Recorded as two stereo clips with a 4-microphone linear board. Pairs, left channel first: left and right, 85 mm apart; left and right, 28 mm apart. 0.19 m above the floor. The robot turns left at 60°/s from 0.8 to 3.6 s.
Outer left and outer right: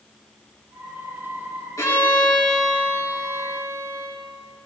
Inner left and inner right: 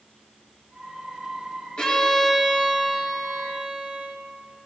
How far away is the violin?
About 3 m.